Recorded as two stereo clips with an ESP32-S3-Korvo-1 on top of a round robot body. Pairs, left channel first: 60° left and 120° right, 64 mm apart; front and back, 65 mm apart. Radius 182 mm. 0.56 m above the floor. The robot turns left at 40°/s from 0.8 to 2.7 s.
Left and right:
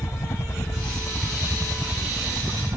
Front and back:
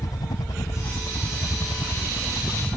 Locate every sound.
0.0 s a helicopter: 15° left; by 2.8 s 60° right